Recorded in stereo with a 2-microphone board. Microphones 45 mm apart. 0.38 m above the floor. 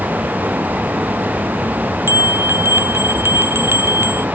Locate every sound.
2.1 s a bell: 60° right (ahead or behind)